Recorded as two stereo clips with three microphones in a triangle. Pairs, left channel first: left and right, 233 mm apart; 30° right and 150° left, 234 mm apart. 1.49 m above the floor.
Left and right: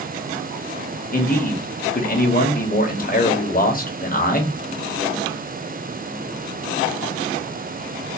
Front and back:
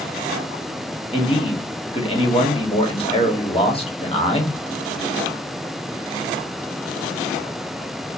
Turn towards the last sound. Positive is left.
turn(degrees=35)